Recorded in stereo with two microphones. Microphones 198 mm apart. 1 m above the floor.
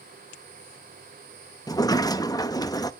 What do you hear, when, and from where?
1.7 s a sliding door: 20° left (ahead or behind), 0.7 m